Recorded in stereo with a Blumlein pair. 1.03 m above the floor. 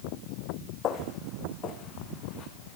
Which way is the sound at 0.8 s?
30° left.